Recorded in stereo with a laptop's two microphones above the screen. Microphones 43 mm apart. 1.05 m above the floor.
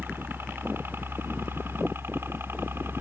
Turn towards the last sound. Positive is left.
turn(degrees=-65)  # may be behind; listen again after turning